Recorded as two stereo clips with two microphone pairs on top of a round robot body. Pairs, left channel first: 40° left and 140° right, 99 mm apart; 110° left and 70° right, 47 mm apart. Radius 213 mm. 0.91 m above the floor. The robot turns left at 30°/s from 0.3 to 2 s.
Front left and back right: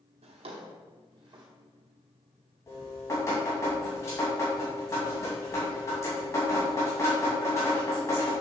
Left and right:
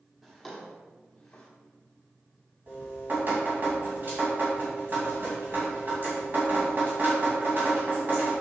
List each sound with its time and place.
0.2 s a drawer: 160° right, 1.0 m; by 1.5 s 165° left, 1.0 m
2.7 s dripping: 20° right, 2 m